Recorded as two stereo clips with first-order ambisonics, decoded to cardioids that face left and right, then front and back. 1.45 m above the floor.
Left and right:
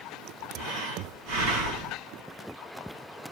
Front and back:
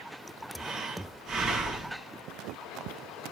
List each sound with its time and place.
0.6 s breathing: 115° right, 5.5 m